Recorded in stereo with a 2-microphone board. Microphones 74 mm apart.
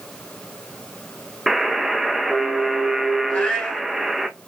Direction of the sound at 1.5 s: Centre (ahead or behind).